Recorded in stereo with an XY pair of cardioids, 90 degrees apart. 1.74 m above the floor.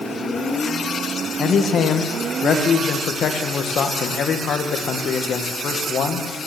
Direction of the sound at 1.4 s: 65° left.